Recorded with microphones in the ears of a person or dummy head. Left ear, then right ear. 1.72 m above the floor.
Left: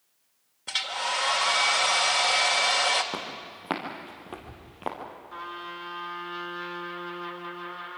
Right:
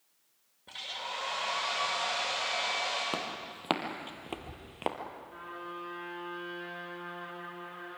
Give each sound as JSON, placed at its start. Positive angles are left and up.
{"t": 0.7, "sound": "a hair dryer", "side_deg": 40, "distance_m": 2.0}
{"t": 3.1, "sound": "footsteps", "side_deg": -20, "distance_m": 3.0}
{"t": 5.3, "sound": "a trumpet", "side_deg": 45, "distance_m": 3.5}